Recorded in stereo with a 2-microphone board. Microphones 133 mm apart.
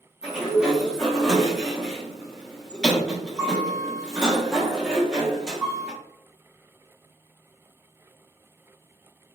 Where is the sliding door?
5° right (ahead or behind), 0.7 m.